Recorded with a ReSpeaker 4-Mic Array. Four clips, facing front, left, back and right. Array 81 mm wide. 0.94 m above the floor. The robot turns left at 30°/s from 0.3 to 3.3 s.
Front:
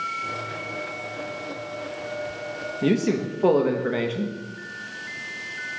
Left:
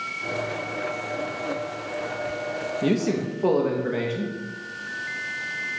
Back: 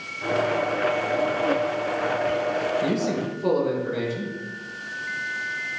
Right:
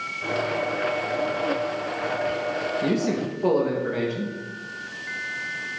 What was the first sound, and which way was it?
A man speaking, 20° left.